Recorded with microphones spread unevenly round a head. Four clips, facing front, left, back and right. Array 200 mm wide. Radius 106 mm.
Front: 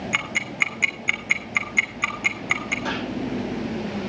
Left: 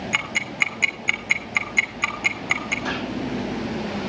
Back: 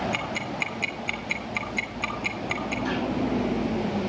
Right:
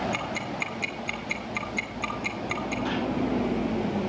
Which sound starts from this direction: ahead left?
Ticking, at 0.1 s.